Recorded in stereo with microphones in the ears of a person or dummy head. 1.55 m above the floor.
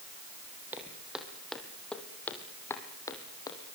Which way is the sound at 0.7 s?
5° right (ahead or behind).